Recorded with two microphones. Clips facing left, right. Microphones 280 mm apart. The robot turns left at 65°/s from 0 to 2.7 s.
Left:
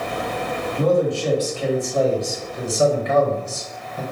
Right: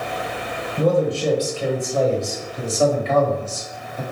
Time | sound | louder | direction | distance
0.8 | a man speaking | even | 25° right (ahead or behind) | 1.2 m